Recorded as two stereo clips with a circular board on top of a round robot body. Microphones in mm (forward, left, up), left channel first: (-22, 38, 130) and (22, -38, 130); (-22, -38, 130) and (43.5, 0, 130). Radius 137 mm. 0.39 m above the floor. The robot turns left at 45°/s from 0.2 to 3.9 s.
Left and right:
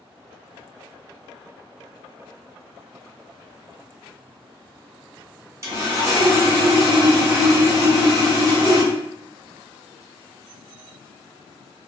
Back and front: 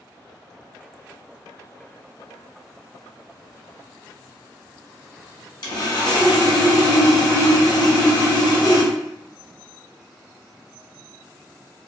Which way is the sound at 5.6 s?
120° right.